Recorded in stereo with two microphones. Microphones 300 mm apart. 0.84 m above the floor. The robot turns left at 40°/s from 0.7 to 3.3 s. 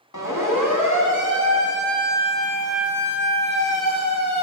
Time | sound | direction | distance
0.1 | a siren | 75° left (ahead or behind) | 6 m